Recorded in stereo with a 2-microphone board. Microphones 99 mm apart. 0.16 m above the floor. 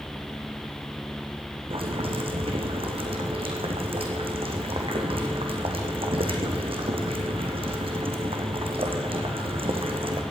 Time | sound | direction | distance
1.7 | boiling | 70° right (ahead or behind) | 2 m